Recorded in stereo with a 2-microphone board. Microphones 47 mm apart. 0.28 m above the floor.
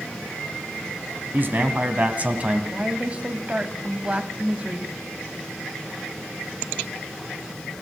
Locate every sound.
1.3 s a man speaking: 40° right (ahead or behind), 2 m; by 2.6 s 25° right (ahead or behind), 1.8 m
2.7 s a woman speaking: 25° right (ahead or behind), 1.7 m